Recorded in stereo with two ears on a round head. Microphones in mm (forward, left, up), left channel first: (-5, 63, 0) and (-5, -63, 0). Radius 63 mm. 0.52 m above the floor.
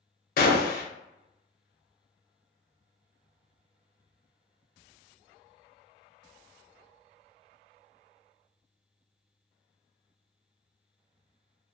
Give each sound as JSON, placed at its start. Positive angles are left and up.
{"t": 0.4, "sound": "a gunshot", "side_deg": 70, "distance_m": 0.5}